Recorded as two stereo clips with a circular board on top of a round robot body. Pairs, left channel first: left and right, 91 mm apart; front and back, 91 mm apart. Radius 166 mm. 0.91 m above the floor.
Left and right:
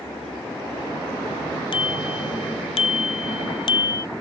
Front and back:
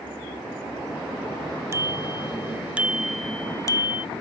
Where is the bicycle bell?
120° left; by 4.1 s 25° left.